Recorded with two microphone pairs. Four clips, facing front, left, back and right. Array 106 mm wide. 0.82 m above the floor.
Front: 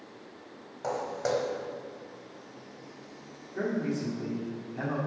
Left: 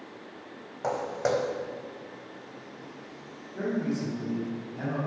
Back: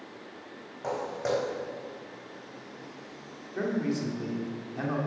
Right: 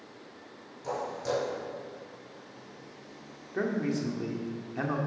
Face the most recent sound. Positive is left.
turn(degrees=-115)